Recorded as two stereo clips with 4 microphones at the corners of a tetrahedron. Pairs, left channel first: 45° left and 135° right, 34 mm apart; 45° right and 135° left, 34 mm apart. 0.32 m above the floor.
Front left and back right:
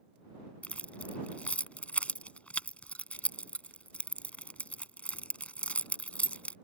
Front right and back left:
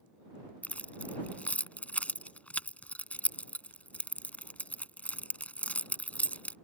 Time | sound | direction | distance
0.6 | keys jangling | straight ahead | ?